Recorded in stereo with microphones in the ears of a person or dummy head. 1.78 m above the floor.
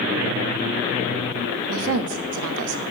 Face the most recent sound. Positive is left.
turn(degrees=-75)  # may be behind; listen again after turning